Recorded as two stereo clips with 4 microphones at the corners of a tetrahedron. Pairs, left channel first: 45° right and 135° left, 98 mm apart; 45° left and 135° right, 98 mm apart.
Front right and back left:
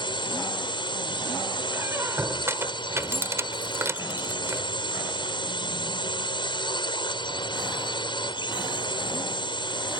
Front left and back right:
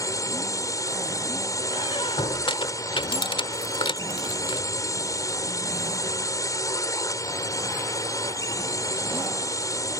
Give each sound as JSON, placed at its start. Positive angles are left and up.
{"t": 0.0, "sound": "a drone", "azimuth_deg": -10}
{"t": 1.7, "sound": "a squeak", "azimuth_deg": 75}